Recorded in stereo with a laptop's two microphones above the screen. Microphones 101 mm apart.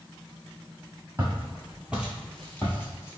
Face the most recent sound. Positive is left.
turn(degrees=30)  # may be behind; listen again after turning